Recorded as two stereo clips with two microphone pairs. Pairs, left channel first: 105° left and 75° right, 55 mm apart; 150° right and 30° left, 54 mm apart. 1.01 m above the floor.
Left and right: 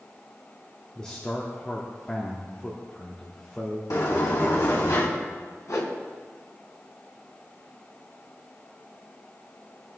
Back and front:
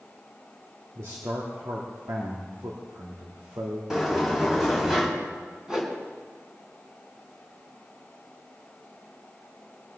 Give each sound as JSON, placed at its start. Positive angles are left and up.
{"t": 0.9, "sound": "a man speaking", "azimuth_deg": 30, "distance_m": 1.9}
{"t": 3.9, "sound": "a sliding door", "azimuth_deg": 115, "distance_m": 4.0}
{"t": 5.7, "sound": "a whoosh", "azimuth_deg": 110, "distance_m": 2.5}